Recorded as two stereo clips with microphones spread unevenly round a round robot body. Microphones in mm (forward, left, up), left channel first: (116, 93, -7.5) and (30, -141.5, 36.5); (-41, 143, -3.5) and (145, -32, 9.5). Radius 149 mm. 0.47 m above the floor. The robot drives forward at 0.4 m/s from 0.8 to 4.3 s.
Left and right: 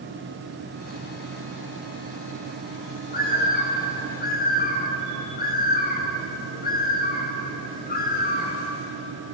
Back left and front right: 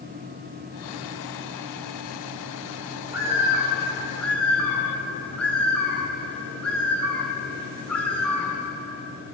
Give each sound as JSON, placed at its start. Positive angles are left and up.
{"t": 3.1, "sound": "a bird", "azimuth_deg": 35, "distance_m": 1.4}